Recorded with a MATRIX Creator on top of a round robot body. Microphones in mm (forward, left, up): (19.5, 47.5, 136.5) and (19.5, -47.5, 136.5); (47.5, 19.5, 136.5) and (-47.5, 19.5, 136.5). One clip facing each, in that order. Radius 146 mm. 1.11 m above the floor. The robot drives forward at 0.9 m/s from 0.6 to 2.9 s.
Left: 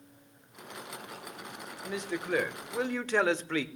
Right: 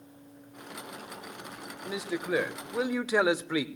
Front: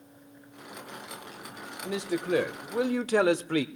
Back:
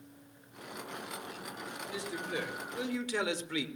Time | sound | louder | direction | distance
1.8 | a man speaking | right 2 dB, front 11 dB | 5° right | 1.8 m